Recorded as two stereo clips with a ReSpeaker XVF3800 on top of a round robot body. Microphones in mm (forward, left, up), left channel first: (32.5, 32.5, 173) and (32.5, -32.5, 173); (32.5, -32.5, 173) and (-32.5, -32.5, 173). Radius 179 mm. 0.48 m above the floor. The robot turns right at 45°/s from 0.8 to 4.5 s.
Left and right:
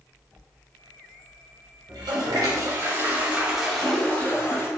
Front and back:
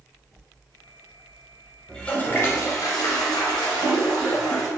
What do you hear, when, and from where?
1.9 s a toilet flushing: 80° right, 0.8 m; by 4.7 s 35° left, 0.8 m